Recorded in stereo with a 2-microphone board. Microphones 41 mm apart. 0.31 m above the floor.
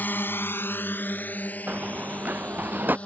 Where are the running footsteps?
40° right (ahead or behind); by 3.0 s 50° right (ahead or behind).